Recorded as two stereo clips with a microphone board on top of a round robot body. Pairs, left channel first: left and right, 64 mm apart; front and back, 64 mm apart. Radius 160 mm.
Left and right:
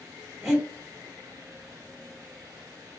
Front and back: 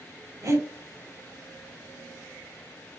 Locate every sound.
0.4 s breathing: 175° right, 2.5 m